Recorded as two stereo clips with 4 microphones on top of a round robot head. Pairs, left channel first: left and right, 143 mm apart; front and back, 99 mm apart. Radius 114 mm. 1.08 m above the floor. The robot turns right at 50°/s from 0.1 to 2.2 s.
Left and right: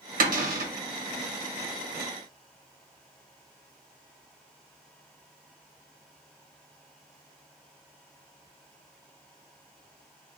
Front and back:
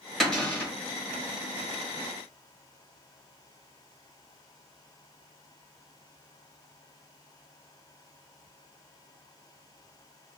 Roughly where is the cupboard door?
Right.